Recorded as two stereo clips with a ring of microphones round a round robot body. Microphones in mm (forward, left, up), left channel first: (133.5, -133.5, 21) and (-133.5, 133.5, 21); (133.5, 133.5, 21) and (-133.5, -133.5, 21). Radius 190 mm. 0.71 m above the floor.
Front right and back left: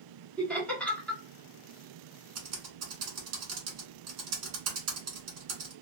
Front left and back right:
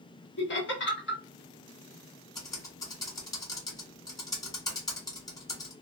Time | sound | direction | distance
0.4 | laughter | 40° left | 1.1 m
2.4 | typing on a keyboard | 120° left | 1.3 m